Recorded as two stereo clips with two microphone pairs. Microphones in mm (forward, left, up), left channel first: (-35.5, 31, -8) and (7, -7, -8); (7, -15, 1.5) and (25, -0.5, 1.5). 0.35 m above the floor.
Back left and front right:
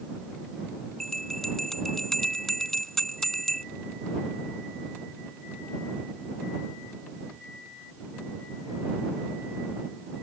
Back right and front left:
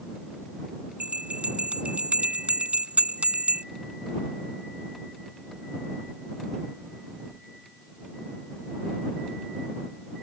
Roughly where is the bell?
Ahead left.